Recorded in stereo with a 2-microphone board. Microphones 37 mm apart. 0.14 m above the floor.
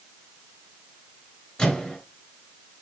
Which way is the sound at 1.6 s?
25° left (ahead or behind).